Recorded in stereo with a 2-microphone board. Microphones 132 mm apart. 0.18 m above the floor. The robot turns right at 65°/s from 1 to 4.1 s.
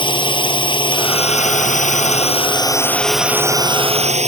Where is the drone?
40° left; by 4.3 s 115° right.